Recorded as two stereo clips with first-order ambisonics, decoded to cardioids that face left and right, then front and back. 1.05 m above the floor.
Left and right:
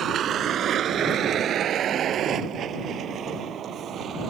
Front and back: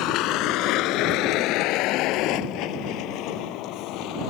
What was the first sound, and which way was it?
A vehicle, 35° right.